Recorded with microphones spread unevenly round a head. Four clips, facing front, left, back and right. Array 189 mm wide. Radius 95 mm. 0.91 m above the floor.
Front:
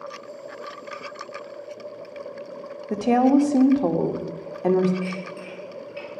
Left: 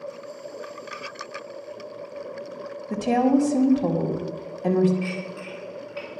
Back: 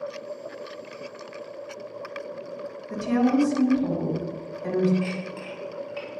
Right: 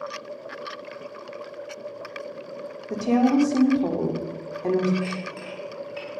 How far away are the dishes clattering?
About 4.5 m.